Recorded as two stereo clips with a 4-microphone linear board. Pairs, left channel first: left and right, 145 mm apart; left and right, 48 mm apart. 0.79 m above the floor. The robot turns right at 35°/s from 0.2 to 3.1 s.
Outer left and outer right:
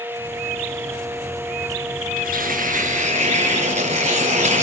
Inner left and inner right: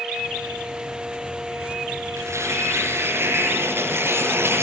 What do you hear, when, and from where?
2.2 s tearing paper: 85° right, 7.5 m; by 4.6 s 55° right, 7.5 m